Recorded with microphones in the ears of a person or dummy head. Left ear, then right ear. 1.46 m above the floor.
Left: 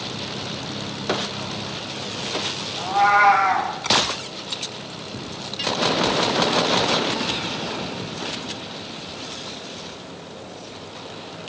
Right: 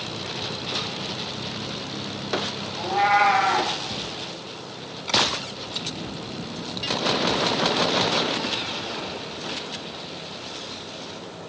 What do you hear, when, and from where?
2.8 s a cat meowing: 15° right (ahead or behind), 2.5 m